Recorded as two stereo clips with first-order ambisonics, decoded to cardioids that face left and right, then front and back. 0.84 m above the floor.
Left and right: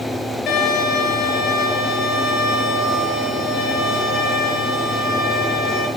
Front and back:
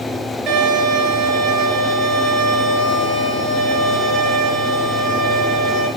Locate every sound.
0.5 s a violin: 145° left, 8 m